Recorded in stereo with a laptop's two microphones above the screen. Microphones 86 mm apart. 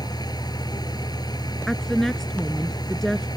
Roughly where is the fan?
Left.